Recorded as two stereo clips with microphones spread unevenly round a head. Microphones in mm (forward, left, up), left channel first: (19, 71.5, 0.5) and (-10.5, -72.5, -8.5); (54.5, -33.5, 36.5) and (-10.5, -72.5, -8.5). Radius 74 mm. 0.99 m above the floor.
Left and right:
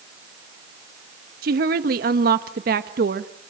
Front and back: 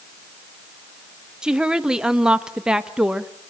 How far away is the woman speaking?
About 1.3 m.